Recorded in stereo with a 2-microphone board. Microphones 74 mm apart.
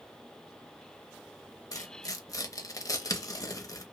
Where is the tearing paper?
50° left (ahead or behind), 0.5 m.